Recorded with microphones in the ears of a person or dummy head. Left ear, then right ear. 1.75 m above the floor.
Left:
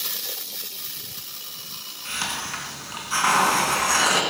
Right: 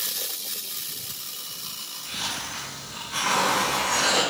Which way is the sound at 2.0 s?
45° left (ahead or behind).